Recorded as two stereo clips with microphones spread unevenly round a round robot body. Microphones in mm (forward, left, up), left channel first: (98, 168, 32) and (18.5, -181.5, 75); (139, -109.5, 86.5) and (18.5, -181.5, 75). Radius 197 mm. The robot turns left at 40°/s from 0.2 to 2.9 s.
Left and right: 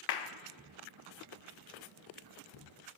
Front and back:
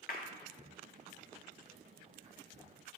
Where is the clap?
60° left, 0.7 m; by 0.3 s 55° left, 0.7 m.